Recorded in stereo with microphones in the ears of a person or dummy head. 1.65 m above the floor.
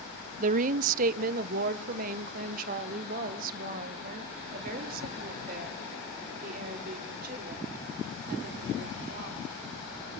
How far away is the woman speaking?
About 0.6 m.